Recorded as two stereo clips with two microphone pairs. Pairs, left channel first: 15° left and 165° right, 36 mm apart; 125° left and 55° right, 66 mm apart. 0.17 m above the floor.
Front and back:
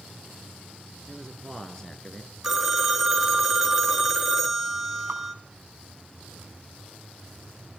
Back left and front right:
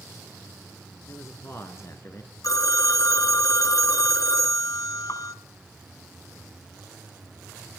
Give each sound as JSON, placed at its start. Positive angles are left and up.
{"t": 1.1, "sound": "a man speaking", "azimuth_deg": 90, "distance_m": 2.0}
{"t": 2.4, "sound": "a phone ringing", "azimuth_deg": 115, "distance_m": 1.5}
{"t": 5.1, "sound": "dripping", "azimuth_deg": 170, "distance_m": 5.0}